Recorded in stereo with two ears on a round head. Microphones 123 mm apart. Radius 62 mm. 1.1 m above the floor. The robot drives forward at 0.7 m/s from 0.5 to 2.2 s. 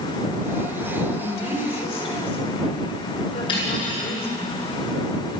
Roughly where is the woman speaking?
Left.